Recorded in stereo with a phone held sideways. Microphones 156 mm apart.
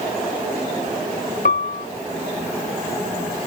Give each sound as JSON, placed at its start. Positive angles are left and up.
{"t": 1.4, "sound": "a piano", "side_deg": 60}